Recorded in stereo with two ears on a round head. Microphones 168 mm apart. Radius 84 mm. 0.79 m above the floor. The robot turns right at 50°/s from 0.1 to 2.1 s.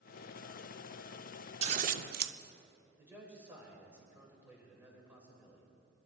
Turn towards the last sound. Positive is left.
turn(degrees=-10)  # may be behind; listen again after turning